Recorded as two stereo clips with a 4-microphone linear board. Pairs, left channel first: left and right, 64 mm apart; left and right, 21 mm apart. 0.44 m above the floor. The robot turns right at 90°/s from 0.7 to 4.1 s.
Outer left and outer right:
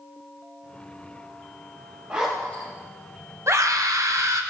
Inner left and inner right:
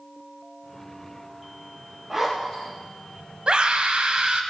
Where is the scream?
125° right, 2 m; by 4.4 s 70° right, 2 m.